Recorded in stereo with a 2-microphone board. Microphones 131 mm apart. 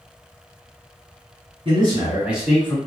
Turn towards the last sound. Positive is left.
turn(degrees=25)  # may be behind; listen again after turning